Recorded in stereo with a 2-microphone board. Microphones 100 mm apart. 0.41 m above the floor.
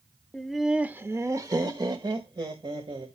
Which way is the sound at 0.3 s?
10° left (ahead or behind).